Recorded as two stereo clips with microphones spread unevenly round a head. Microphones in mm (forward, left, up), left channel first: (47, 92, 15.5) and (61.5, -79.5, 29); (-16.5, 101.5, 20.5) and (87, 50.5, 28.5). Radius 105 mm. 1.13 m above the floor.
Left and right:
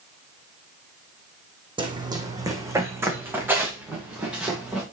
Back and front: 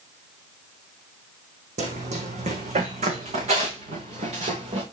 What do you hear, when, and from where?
1.8 s running footsteps: 25° right, 2.5 m; by 4.8 s straight ahead, 5.5 m